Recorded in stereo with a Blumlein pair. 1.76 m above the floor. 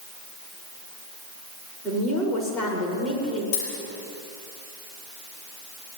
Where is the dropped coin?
45° left, 7 m.